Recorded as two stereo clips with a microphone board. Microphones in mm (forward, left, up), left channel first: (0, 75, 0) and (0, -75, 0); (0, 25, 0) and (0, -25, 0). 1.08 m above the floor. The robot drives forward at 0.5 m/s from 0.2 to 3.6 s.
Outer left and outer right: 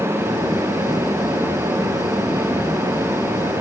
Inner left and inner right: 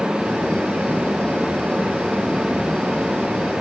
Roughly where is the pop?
No pop in this recording.